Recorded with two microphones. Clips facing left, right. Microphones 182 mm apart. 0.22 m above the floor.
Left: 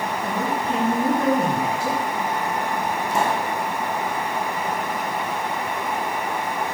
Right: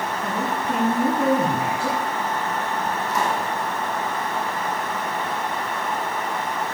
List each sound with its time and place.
0.2 s a man speaking: 40° right (ahead or behind), 3.5 m
3.1 s a pop: 30° left (ahead or behind), 2.5 m